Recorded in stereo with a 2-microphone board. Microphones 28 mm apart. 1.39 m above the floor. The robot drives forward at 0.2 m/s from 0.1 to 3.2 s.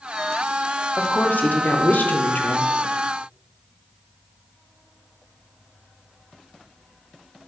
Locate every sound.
1.0 s a woman speaking: 65° left (ahead or behind), 0.5 m; by 2.7 s 75° left (ahead or behind), 0.5 m